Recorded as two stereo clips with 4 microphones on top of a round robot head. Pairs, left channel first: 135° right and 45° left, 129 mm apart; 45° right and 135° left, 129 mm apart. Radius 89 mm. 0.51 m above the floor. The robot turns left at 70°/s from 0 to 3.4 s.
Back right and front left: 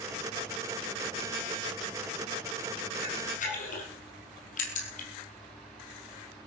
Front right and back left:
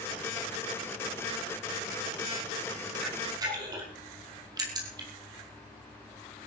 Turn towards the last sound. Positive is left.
turn(degrees=-165)